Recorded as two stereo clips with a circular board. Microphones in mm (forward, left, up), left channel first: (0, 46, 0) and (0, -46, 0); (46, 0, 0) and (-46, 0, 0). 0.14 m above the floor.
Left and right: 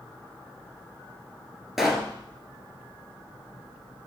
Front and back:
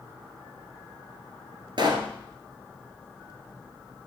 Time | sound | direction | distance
1.8 | a pop | 175° right | 1.5 m